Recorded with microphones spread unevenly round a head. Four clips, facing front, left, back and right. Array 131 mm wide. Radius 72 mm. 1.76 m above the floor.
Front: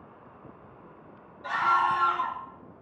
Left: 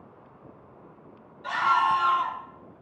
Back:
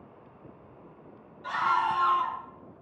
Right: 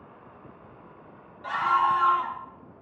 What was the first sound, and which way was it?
A scream, 55° right.